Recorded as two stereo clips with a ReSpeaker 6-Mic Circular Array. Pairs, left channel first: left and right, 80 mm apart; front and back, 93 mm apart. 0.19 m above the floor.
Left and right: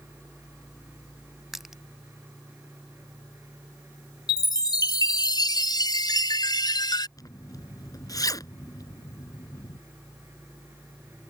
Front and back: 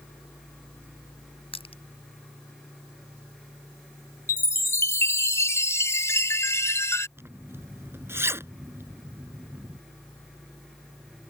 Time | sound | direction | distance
1.5 | crushing | 5° right | ?
4.3 | a chime | 60° left | ?
7.2 | a zipper | 120° left | ?